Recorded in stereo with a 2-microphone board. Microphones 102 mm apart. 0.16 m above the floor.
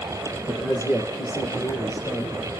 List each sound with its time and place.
0.5 s a man speaking: 5° right (ahead or behind), 5.5 m; by 2.5 s 15° left (ahead or behind), 4.5 m